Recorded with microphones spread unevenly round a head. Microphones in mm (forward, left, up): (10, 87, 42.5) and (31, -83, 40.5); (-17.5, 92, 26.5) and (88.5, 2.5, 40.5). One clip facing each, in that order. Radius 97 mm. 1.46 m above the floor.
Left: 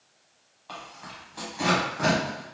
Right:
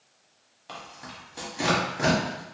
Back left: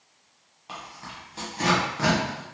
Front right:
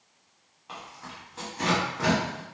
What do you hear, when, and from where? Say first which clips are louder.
0.7 s tearing paper: even, back left 2 dB; 155° right, 0.7 m